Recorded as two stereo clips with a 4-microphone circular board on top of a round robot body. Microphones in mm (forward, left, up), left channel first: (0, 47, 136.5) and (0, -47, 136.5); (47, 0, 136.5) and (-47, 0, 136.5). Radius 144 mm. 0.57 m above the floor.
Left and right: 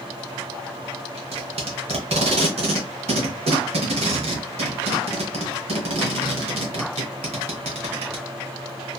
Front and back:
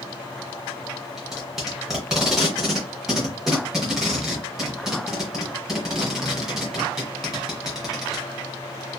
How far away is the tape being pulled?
About 0.9 m.